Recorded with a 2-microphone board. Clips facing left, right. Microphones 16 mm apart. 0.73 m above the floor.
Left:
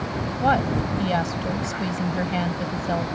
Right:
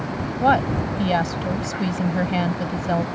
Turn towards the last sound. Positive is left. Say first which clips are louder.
# right 3 dB
turn(degrees=-5)  # may be behind; listen again after turning